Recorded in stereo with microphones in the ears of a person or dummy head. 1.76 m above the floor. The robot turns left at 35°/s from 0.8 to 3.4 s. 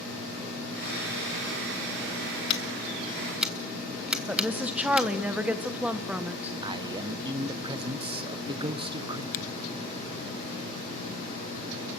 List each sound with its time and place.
2.5 s scissors: 25° left (ahead or behind), 1.7 m; by 5.1 s 5° right (ahead or behind), 1.7 m
4.3 s a woman speaking: centre (ahead or behind), 1.4 m
6.6 s a man speaking: 20° right (ahead or behind), 1.6 m
9.3 s a finger snap: 45° left (ahead or behind), 0.8 m